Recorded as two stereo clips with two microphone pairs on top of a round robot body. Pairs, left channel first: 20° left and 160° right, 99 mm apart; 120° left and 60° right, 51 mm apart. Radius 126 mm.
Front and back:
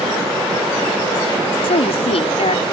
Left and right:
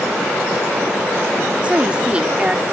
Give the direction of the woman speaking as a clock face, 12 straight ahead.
12 o'clock.